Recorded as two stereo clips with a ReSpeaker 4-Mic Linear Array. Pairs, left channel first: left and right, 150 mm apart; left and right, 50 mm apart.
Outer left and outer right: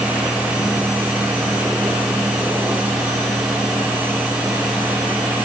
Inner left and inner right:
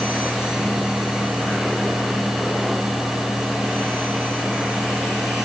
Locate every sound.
Only background noise.